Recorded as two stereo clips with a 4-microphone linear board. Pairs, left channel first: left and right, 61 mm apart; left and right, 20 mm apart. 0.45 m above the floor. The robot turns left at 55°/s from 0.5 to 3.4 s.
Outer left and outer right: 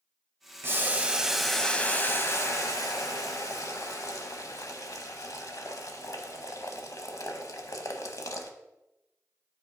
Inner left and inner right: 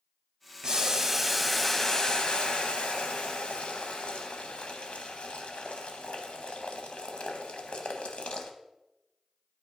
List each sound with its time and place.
0.6 s boiling: 135° right, 0.8 m; by 8.5 s 70° left, 0.8 m